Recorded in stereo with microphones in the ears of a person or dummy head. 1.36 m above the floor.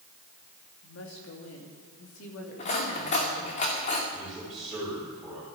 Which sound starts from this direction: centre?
A man speaking, at 4.1 s.